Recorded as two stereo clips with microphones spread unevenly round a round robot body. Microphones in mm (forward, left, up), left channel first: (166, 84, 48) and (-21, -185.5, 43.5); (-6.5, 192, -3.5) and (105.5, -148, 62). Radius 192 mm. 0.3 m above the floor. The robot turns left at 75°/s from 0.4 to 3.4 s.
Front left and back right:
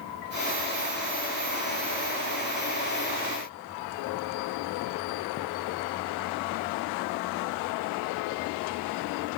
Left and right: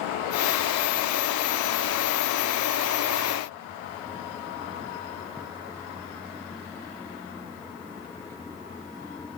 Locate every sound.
Only background noise.